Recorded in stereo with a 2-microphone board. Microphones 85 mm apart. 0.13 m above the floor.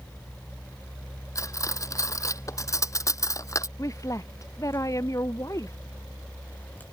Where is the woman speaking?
40° left (ahead or behind).